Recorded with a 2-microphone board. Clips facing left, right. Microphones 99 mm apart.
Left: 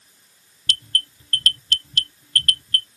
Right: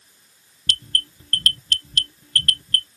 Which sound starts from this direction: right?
An alarm, at 0.7 s.